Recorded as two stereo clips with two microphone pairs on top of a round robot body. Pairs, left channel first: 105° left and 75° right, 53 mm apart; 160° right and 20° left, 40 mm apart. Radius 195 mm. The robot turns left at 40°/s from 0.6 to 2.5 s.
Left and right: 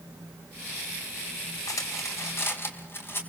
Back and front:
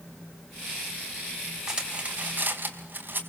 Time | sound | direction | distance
1.7 | cutlery clinking | 90° left | 3.5 m